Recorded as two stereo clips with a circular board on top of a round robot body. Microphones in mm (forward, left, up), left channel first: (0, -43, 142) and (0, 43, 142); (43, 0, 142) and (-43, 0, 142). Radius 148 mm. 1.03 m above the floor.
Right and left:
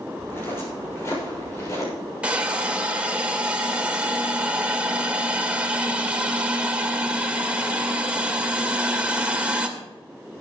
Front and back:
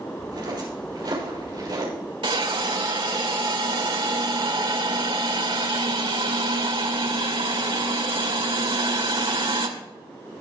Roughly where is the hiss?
Behind.